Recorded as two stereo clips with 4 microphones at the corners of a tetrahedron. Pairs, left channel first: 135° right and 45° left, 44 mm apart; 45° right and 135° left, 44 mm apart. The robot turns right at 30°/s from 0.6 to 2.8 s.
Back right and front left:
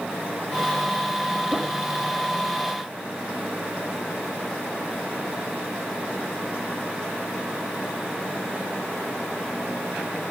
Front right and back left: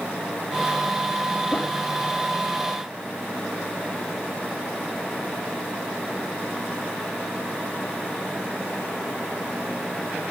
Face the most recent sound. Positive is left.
turn(degrees=40)